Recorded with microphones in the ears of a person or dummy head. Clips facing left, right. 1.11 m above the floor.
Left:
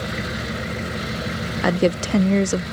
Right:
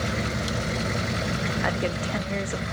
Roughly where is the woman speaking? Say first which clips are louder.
Left 13 dB; left.